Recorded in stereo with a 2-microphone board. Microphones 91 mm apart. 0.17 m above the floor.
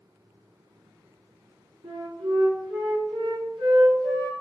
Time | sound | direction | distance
1.8 | a flute | 70° right (ahead or behind) | 5 m